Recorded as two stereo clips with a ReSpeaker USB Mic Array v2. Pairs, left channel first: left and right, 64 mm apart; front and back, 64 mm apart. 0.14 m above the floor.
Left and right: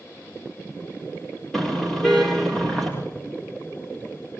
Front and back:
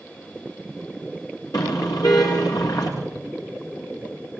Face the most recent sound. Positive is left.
turn(degrees=5)